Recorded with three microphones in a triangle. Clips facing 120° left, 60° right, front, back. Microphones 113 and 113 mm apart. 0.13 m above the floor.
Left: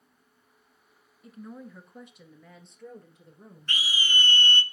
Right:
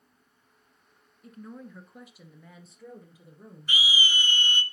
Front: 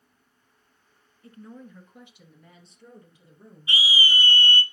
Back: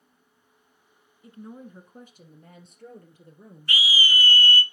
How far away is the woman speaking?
About 1.1 m.